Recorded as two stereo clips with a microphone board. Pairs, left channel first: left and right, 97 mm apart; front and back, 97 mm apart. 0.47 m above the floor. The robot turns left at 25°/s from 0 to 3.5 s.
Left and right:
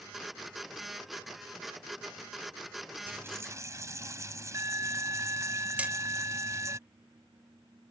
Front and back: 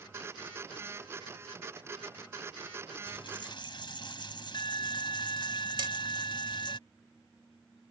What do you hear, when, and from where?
3.1 s a dropped coin: 20° right; by 6.8 s 35° right
5.8 s hammering: 165° right